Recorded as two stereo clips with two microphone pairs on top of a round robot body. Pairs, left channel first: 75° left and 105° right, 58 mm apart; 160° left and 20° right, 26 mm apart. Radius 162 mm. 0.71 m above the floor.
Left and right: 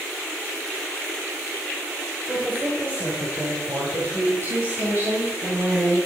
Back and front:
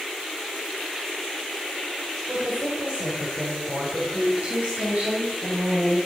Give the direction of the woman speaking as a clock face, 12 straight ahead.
2 o'clock.